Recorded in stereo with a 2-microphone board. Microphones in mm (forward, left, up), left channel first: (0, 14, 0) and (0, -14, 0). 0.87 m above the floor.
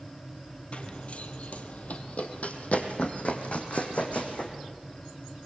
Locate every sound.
0.7 s running footsteps: 50° left (ahead or behind), 1.5 m; by 4.5 s 60° left (ahead or behind), 3.5 m